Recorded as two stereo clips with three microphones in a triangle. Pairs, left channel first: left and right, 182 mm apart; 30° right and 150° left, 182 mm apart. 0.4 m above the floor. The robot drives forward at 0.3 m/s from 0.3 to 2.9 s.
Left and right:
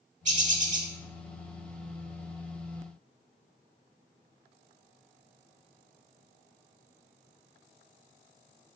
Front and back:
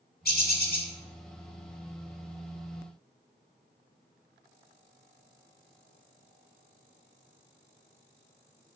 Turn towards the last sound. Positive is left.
turn(degrees=-90)